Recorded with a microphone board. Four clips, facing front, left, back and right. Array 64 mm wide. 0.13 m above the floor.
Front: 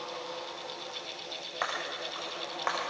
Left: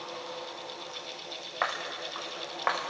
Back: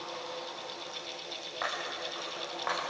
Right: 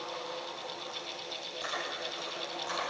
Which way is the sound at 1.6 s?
75° left.